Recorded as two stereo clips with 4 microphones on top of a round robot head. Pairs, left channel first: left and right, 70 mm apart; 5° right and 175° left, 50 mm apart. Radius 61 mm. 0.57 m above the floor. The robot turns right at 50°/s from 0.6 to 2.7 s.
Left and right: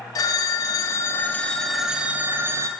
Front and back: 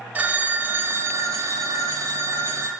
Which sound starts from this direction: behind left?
A phone ringing, at 0.1 s.